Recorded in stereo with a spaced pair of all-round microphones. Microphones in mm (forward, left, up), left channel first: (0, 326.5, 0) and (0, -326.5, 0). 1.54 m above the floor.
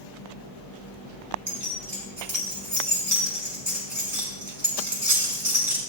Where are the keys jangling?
60° right (ahead or behind), 6 m.